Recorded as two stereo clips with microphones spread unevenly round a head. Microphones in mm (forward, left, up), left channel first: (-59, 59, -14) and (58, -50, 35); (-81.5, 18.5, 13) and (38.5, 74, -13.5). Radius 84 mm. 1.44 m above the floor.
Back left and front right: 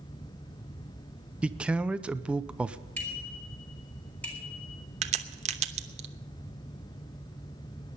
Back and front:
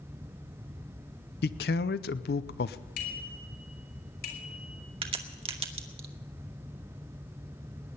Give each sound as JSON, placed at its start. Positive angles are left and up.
{"t": 1.4, "sound": "a man speaking", "azimuth_deg": -125, "distance_m": 0.6}
{"t": 3.0, "sound": "a bicycle bell", "azimuth_deg": -140, "distance_m": 4.0}
{"t": 5.0, "sound": "a crack", "azimuth_deg": -35, "distance_m": 0.9}